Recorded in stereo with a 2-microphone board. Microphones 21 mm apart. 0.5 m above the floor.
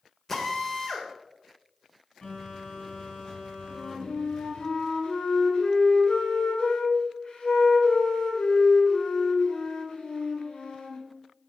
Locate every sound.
0.3 s a drill: 20° left (ahead or behind), 1.6 m
2.2 s a phone buzzing: 55° left (ahead or behind), 4.5 m
3.7 s a flute: 55° left (ahead or behind), 1.7 m